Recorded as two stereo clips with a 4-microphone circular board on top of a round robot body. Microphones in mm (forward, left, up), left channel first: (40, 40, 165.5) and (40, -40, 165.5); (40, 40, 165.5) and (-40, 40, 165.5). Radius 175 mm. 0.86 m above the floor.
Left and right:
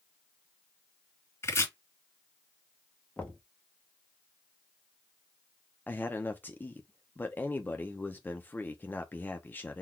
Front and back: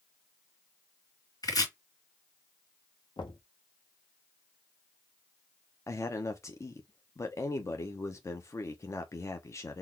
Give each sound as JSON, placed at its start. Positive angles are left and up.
{"t": 1.4, "sound": "chopping", "azimuth_deg": 35, "distance_m": 2.5}
{"t": 3.2, "sound": "knocking", "azimuth_deg": 15, "distance_m": 1.1}
{"t": 5.9, "sound": "a man speaking", "azimuth_deg": 30, "distance_m": 0.8}